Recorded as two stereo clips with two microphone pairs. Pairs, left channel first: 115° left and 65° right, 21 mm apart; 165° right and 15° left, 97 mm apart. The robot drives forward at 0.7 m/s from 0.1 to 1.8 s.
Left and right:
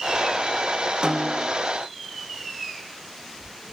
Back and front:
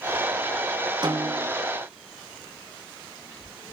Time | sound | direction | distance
1.0 | a snare drum | 30° right | 2.5 m